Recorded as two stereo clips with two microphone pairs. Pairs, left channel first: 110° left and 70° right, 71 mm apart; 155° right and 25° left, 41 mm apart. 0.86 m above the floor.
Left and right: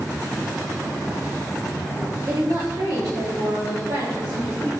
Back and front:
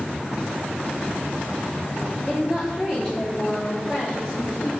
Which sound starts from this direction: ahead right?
A woman speaking, at 2.3 s.